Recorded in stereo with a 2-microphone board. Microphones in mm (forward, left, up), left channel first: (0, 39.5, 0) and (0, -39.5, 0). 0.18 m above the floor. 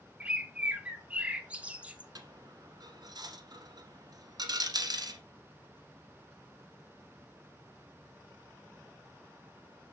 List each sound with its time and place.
0.2 s a bird: 15° right (ahead or behind), 0.6 m
2.1 s a dropped coin: 55° right (ahead or behind), 1.0 m